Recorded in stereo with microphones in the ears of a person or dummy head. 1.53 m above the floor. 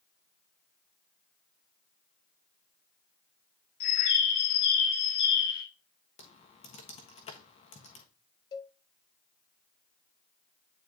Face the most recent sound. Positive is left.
turn(degrees=25)  # may be behind; listen again after turning